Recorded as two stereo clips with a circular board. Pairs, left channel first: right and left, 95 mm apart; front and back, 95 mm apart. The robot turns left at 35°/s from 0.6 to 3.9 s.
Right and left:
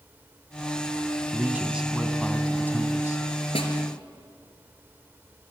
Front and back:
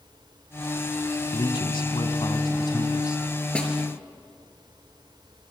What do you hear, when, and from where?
1.3 s a man speaking: 25° left, 1.8 m; by 3.2 s 40° right, 1.8 m
3.5 s a snare drum: 80° right, 3.5 m; by 3.7 s 85° right, 3.5 m